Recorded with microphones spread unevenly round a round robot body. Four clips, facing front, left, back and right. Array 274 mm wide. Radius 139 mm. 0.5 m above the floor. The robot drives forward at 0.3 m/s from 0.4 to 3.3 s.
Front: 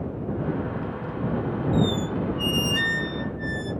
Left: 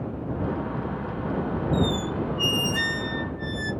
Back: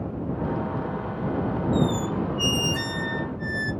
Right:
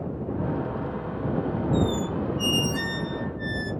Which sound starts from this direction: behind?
A squeak, at 1.7 s.